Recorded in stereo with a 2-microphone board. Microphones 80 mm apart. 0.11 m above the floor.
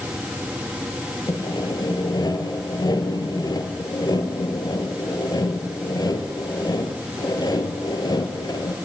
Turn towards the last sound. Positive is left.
turn(degrees=55)  # may be behind; listen again after turning